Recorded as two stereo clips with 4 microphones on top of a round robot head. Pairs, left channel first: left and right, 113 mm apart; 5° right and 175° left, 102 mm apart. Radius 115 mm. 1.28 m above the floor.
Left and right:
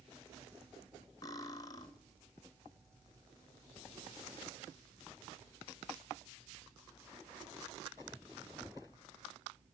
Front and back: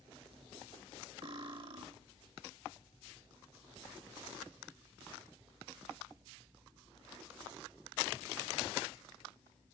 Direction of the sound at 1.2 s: 145° left.